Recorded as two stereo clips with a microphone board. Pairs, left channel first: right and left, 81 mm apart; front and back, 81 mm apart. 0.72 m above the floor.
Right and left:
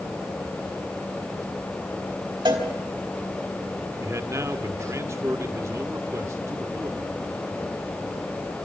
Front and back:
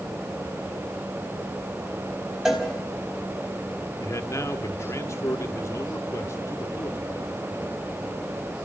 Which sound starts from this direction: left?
A cowbell, at 2.5 s.